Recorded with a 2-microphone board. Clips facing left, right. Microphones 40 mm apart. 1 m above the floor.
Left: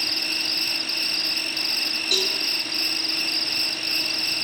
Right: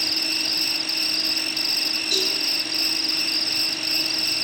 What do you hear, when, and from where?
0.0 s an insect: 10° left (ahead or behind), 1.0 m
2.1 s a cowbell: 45° left (ahead or behind), 4 m